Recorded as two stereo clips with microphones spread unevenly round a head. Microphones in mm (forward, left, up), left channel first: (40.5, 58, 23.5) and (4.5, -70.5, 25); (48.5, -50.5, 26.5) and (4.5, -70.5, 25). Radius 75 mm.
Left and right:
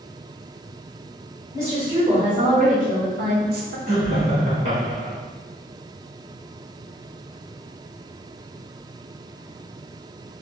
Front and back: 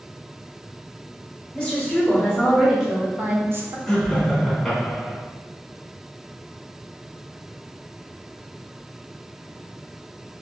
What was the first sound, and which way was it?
A woman speaking, 55° right.